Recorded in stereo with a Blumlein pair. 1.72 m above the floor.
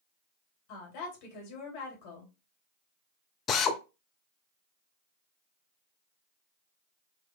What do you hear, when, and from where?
0.7 s a woman speaking: 45° left, 1.8 m
3.5 s a drill: 25° left, 0.6 m